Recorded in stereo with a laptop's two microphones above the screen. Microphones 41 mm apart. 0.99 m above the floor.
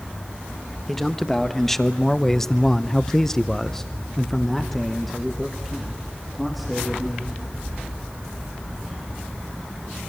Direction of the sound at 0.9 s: 5° left (ahead or behind).